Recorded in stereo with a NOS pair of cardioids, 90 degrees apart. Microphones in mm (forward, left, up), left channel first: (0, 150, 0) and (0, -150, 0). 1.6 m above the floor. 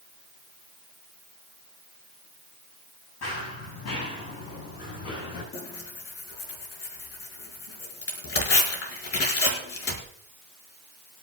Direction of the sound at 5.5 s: 50° left.